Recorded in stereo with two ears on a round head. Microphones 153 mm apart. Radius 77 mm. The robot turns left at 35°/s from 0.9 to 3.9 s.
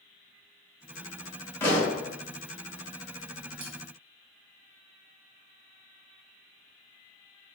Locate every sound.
1.6 s a pop: 10° left (ahead or behind), 2.0 m; by 2.0 s 25° left (ahead or behind), 2.0 m
3.6 s cutlery clinking: 50° right (ahead or behind), 2 m